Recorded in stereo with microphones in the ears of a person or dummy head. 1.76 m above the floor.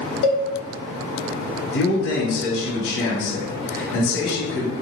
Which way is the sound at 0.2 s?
75° left (ahead or behind).